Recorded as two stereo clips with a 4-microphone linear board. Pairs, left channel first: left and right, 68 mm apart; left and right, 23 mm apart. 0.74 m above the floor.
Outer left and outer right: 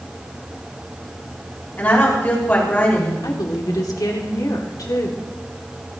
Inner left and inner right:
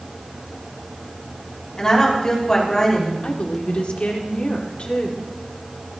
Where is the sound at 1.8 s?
30° left (ahead or behind), 4.5 m.